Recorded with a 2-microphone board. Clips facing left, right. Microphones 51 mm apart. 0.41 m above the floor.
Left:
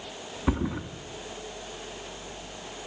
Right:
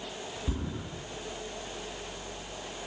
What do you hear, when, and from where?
0.5 s a thud: 75° left (ahead or behind), 2 m